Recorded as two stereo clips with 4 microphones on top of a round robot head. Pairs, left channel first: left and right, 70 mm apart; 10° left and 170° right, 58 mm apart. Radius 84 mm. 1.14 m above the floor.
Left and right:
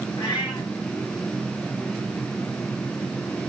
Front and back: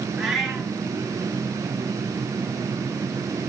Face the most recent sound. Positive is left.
turn(degrees=105)